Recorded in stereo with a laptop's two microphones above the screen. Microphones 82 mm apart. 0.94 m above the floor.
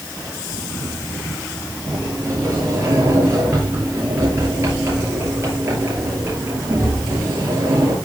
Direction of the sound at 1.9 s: 40° right (ahead or behind).